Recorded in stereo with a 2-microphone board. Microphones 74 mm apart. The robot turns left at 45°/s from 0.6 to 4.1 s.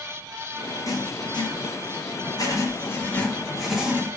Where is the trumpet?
No trumpet in this recording.